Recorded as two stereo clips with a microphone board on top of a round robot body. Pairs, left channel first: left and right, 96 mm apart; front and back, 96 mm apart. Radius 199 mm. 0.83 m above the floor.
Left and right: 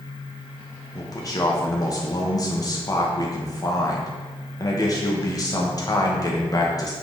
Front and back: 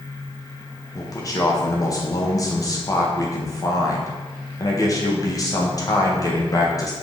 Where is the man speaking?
45° left, 0.8 m.